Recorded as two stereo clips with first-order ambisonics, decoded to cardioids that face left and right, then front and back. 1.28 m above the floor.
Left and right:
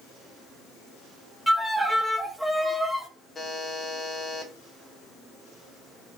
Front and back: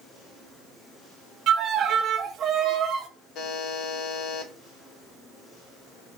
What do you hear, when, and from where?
1.5 s a violin: 170° right, 0.6 m
3.4 s a buzzer: 20° left, 0.8 m